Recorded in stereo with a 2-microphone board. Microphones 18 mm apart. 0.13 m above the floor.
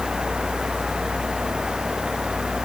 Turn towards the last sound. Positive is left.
No sound to turn to.